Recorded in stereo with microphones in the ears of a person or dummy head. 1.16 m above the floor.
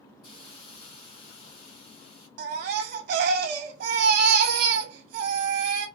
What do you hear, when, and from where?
0.2 s a hiss: 60° left (ahead or behind), 2 m
2.4 s a baby crying: 60° right (ahead or behind), 1.2 m